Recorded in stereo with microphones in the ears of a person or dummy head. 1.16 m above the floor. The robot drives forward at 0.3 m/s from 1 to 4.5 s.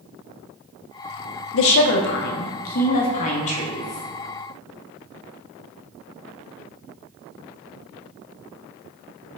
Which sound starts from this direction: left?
A woman speaking, at 1.5 s.